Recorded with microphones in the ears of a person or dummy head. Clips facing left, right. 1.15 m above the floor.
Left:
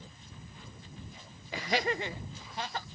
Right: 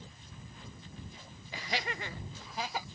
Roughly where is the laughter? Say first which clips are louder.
Left 7 dB; left.